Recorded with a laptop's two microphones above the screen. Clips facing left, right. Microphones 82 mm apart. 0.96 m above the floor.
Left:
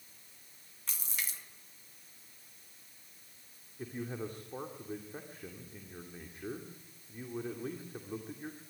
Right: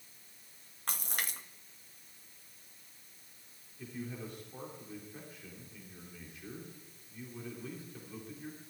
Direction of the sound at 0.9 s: 55° right (ahead or behind).